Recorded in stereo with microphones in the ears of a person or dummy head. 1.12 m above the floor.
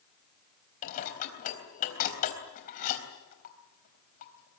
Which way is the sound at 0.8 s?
50° left (ahead or behind).